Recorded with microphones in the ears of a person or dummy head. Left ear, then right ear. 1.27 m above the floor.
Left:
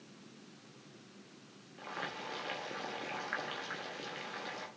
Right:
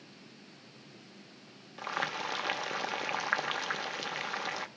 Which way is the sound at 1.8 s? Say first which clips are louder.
Right 7 dB; 45° right (ahead or behind).